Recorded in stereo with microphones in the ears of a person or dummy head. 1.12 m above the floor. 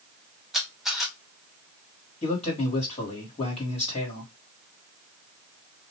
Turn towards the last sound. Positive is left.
turn(degrees=35)  # may be behind; listen again after turning